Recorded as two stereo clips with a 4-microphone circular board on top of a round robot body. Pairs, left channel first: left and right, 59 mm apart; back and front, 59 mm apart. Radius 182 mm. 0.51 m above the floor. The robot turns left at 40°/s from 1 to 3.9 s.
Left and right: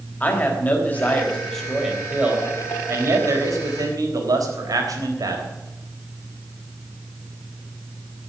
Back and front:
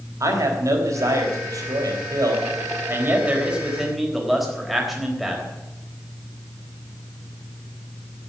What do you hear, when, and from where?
0.2 s a man speaking: 25° left, 4 m; by 5.5 s 90° right, 4 m